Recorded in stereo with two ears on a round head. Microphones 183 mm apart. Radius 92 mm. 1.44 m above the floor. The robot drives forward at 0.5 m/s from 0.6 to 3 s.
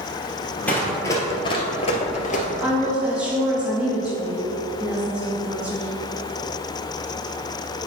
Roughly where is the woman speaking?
Centre.